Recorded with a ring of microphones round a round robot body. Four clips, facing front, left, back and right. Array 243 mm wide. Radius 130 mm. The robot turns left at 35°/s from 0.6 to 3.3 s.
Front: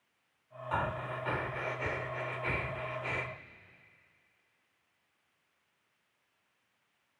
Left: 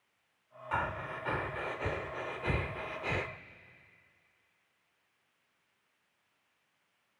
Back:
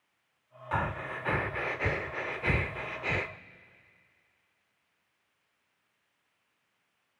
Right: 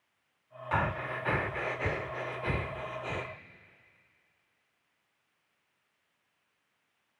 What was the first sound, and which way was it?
Breathing, 115° right.